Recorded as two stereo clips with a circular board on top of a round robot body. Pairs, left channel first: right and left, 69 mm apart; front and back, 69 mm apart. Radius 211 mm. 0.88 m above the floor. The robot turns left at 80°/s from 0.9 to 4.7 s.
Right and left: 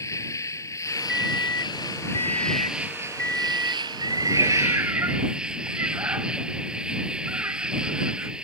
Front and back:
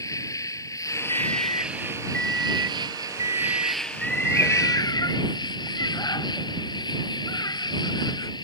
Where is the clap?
No clap in this recording.